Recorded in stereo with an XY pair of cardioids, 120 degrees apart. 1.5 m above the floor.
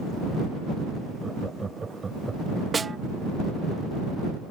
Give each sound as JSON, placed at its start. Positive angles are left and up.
{"t": 1.2, "sound": "laughter", "azimuth_deg": -20}
{"t": 2.7, "sound": "a snare drum", "azimuth_deg": -20}